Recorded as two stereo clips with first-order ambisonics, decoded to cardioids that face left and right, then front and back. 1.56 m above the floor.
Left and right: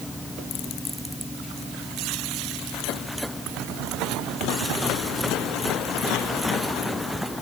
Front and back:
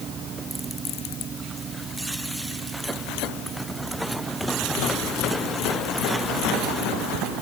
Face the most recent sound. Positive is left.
No sound to turn to.